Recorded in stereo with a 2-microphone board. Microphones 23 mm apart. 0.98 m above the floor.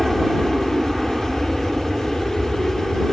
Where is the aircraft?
10° right (ahead or behind).